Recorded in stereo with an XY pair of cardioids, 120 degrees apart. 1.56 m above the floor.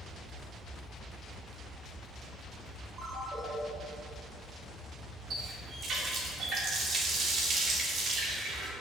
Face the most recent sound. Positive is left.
turn(degrees=-55)